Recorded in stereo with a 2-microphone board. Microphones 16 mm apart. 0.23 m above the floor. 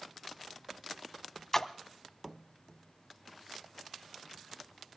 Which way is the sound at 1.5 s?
20° left (ahead or behind).